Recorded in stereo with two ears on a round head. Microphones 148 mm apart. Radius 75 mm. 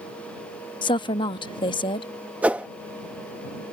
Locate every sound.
0.8 s a woman speaking: 30° left (ahead or behind)
2.4 s a whoosh: 10° right (ahead or behind)